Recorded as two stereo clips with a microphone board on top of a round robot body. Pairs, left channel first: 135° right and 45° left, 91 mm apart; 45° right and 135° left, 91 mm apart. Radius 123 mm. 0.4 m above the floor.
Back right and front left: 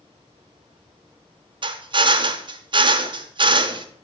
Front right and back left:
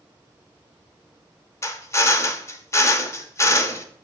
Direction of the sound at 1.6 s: 15° left.